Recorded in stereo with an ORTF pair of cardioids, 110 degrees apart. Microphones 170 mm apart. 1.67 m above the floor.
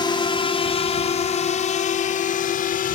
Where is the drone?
25° left; by 3.0 s 55° left.